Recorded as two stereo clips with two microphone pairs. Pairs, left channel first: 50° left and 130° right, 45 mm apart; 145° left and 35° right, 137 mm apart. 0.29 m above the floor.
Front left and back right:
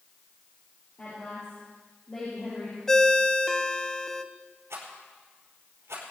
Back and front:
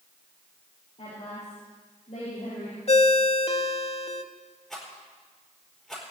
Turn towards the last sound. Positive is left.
turn(degrees=-125)